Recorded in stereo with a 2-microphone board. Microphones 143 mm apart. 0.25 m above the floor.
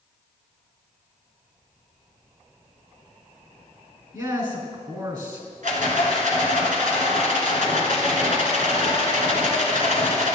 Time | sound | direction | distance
4.1 | a man speaking | 30° right (ahead or behind) | 3.5 m
5.6 | a rattle | 70° right (ahead or behind) | 2 m